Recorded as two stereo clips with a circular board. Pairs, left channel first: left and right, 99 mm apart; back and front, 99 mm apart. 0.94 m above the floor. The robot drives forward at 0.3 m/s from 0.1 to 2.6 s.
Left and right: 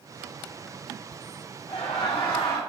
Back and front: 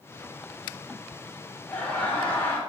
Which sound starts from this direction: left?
Laughter, at 1.7 s.